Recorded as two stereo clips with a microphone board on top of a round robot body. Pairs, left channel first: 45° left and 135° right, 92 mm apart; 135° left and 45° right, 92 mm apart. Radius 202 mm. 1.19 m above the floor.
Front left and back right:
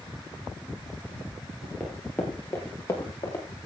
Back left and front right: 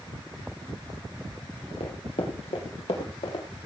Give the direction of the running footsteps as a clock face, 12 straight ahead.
8 o'clock.